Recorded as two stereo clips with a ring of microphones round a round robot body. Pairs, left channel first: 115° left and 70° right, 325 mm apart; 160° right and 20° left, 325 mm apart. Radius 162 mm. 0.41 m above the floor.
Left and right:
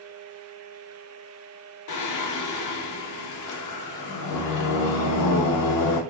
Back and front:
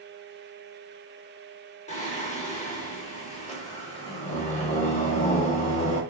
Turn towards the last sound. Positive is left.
turn(degrees=135)